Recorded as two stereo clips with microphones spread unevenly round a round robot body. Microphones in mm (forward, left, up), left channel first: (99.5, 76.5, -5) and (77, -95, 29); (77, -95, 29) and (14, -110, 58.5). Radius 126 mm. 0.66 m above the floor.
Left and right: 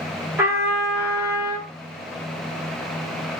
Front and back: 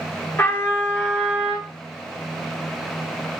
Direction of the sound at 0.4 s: 20° right.